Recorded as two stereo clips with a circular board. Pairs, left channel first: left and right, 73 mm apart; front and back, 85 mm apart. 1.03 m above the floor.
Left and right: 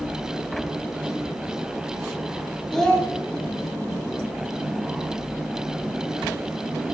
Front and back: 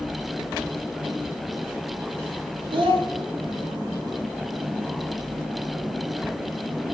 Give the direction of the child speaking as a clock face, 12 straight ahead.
6 o'clock.